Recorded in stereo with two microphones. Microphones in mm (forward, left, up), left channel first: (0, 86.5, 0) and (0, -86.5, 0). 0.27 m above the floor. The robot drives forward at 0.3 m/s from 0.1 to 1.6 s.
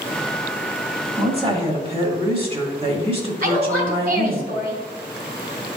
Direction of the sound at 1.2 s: 35° right (ahead or behind).